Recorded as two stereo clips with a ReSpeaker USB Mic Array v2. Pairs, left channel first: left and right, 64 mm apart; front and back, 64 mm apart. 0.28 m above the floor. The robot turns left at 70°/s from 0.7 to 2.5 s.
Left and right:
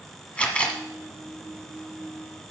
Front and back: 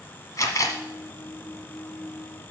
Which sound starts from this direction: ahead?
A camera shutter, at 0.4 s.